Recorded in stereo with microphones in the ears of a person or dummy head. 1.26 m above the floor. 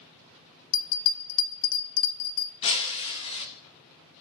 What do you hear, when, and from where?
0.7 s a bell: 80° left, 0.7 m
2.6 s breaking glass: 35° left (ahead or behind), 0.8 m